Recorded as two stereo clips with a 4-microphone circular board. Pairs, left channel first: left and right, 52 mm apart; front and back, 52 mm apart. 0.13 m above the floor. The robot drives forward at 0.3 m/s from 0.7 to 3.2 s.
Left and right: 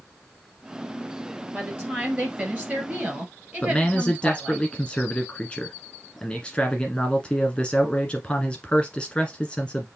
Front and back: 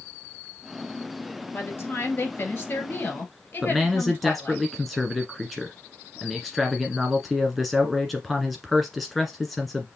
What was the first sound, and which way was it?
A woman speaking, 35° right.